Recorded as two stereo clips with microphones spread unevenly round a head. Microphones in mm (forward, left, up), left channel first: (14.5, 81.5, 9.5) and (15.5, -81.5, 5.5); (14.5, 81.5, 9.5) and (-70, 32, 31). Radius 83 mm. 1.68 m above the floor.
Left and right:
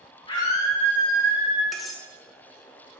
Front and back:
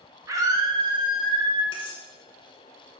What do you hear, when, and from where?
0.3 s a scream: 155° left, 2 m; by 1.6 s 170° right, 2.5 m
1.7 s cutlery clinking: straight ahead, 0.9 m